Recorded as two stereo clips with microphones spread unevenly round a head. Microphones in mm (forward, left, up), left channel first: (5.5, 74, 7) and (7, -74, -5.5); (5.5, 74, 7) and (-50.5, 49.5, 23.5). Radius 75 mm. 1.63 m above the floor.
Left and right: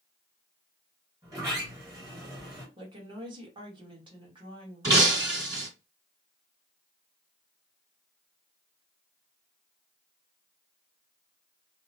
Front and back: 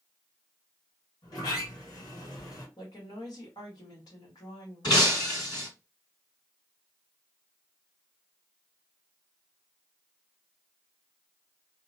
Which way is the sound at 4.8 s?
25° right.